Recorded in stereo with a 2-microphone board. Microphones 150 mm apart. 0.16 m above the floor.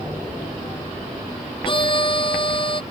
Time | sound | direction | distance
1.6 | a violin | 35° left (ahead or behind) | ?